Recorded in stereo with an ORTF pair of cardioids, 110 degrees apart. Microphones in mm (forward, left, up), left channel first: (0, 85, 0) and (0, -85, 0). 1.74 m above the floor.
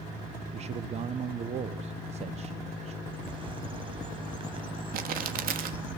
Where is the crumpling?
60° right, 3.5 m.